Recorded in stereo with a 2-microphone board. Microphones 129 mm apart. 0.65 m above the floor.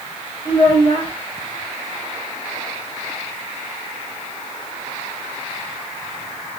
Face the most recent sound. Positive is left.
turn(degrees=40)  # may be behind; listen again after turning